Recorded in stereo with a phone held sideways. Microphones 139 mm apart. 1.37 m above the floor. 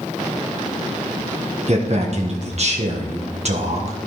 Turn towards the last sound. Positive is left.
turn(degrees=-55)  # may be behind; listen again after turning